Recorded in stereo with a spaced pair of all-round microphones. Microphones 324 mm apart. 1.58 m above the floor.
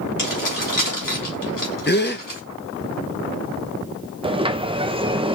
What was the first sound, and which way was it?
Keys jangling, 75° left (ahead or behind).